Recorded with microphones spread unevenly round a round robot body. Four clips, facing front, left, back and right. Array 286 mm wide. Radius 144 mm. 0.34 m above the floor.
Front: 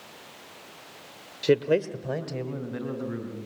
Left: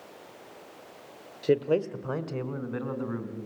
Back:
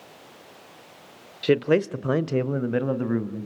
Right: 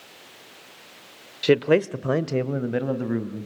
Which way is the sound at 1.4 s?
85° right.